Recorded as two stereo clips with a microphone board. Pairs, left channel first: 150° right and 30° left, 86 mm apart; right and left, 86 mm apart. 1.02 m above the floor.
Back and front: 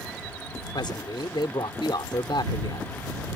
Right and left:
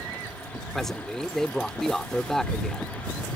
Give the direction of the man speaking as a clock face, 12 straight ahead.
6 o'clock.